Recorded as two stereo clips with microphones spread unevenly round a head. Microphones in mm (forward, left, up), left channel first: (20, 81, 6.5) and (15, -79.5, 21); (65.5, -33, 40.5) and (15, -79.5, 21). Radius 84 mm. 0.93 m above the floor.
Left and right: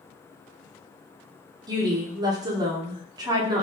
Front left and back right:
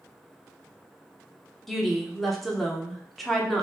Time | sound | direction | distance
1.7 | a woman speaking | 95° right | 0.7 m